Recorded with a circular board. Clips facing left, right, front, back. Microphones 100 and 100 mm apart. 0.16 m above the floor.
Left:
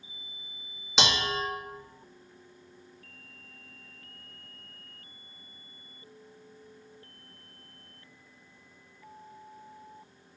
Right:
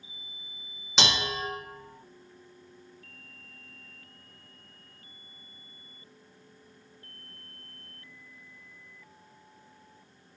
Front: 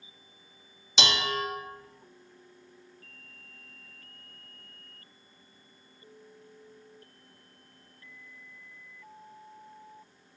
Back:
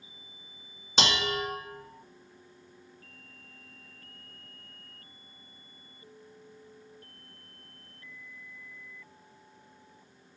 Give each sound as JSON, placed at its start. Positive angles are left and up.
{"t": 1.0, "sound": "dishes clattering", "azimuth_deg": 180, "distance_m": 1.1}